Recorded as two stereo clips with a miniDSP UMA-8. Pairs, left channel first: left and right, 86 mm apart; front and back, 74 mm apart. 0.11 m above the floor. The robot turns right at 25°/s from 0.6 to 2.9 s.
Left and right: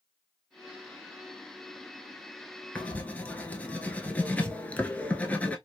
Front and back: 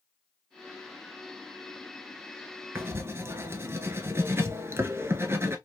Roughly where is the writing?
Behind left.